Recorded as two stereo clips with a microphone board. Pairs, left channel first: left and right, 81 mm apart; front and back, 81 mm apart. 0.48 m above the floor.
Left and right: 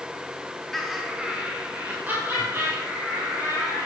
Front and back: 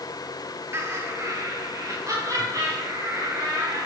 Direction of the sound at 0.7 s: 175° left.